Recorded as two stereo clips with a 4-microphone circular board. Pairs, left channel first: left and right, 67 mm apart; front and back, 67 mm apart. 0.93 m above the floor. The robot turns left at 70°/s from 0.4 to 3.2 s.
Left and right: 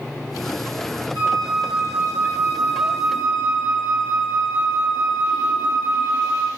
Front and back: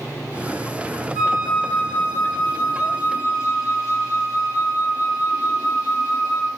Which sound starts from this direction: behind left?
A flute, at 1.1 s.